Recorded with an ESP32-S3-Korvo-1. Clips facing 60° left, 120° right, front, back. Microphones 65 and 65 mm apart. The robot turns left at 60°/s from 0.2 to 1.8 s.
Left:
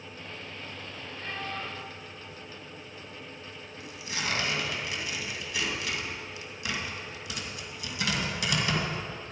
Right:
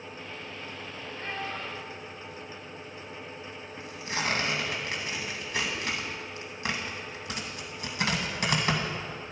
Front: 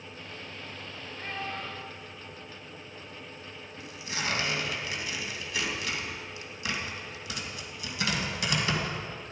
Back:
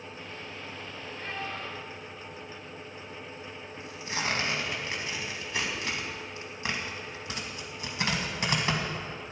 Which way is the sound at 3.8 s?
140° right.